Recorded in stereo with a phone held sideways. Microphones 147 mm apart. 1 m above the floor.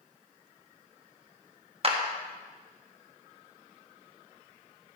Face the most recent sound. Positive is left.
turn(degrees=-45)  # may be behind; listen again after turning